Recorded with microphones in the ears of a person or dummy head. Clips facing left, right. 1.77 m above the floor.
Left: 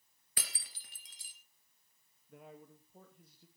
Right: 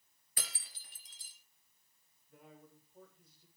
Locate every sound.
0.4 s breaking glass: 55° left (ahead or behind), 3.5 m
2.3 s a man speaking: 55° left (ahead or behind), 2.5 m